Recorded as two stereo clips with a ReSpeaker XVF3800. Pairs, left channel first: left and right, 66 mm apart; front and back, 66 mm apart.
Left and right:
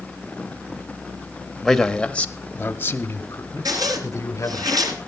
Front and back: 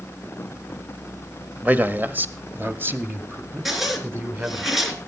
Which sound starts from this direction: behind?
A man speaking, at 1.6 s.